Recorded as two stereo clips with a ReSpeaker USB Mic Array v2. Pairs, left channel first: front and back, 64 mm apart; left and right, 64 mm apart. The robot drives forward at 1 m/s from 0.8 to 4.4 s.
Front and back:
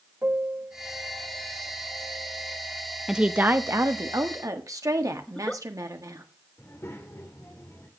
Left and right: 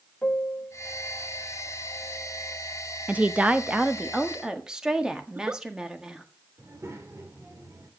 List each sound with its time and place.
0.2 s a piano: 145° left, 1.4 m; by 2.5 s 165° left, 3 m
3.1 s a woman speaking: 110° right, 0.7 m; by 6.2 s 170° right, 1.6 m
5.3 s a giggle: 60° right, 0.7 m
6.6 s a child speaking: 45° right, 2 m